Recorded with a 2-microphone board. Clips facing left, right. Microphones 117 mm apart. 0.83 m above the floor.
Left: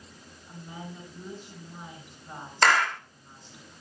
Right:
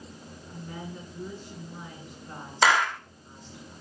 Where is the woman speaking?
15° left (ahead or behind), 9.5 m.